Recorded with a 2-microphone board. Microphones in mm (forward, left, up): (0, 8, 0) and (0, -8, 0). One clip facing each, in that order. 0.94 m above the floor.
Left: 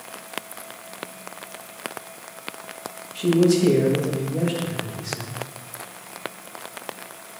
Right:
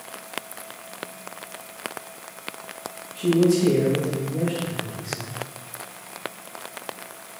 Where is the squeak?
No squeak in this recording.